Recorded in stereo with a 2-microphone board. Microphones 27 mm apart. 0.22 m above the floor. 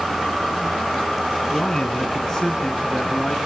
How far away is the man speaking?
About 2.5 m.